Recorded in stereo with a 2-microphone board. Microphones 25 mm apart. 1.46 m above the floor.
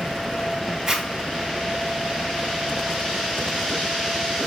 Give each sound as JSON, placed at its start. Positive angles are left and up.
{"t": 0.9, "sound": "a zipper", "side_deg": -15, "distance_m": 1.3}